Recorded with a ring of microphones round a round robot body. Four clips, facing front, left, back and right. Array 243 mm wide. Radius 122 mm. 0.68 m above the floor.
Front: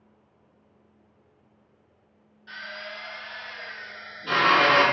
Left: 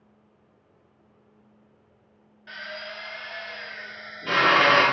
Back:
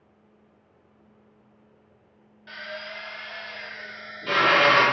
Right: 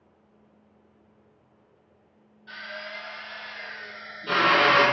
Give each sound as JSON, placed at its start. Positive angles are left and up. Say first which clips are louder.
{"t": 2.5, "sound": "a drill", "louder": "left 1 dB, back 1 dB", "azimuth_deg": 125, "distance_m": 1.3}